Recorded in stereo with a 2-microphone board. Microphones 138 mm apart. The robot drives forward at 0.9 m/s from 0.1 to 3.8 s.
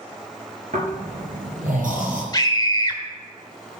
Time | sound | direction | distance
0.7 | snoring | 60° right (ahead or behind) | 4.5 m
2.3 | a scream | 30° left (ahead or behind) | 1.4 m